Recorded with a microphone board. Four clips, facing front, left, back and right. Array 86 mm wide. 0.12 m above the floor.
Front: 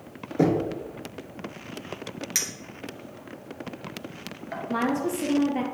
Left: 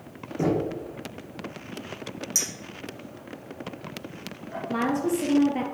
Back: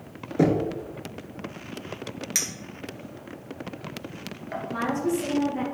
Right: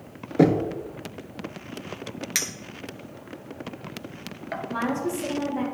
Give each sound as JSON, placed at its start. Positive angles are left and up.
{"t": 0.4, "sound": "knocking", "azimuth_deg": -100, "distance_m": 1.2}
{"t": 2.4, "sound": "a clink", "azimuth_deg": -90, "distance_m": 1.4}
{"t": 4.7, "sound": "a woman speaking", "azimuth_deg": 50, "distance_m": 3.0}